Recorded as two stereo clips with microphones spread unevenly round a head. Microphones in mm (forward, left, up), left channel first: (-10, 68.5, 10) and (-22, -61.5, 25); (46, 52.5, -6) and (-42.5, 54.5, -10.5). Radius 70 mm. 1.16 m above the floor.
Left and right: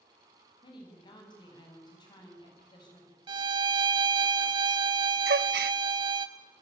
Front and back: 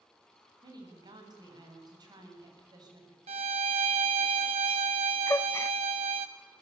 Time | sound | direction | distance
0.6 | a woman speaking | 140° left | 8.5 m
3.3 | a violin | 150° right | 1.2 m
5.3 | a gasp | 75° right | 0.5 m